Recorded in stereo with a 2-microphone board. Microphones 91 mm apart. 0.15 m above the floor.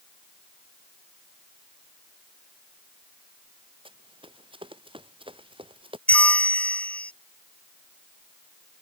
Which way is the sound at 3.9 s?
70° right (ahead or behind).